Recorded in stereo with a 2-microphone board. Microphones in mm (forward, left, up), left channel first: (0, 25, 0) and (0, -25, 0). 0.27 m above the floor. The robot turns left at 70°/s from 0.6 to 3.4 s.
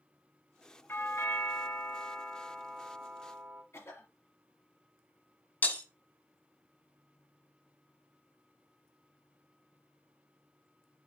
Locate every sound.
0.9 s a doorbell: 125° left, 3 m; by 3.6 s 55° right, 3 m
3.7 s a cough: 60° left (ahead or behind), 4 m
5.6 s breaking glass: 35° left (ahead or behind), 1.3 m